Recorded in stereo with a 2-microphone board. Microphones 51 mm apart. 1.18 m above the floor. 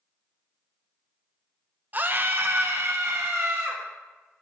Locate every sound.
1.9 s a scream: 40° right (ahead or behind), 0.7 m; by 3.8 s 75° right (ahead or behind), 1.6 m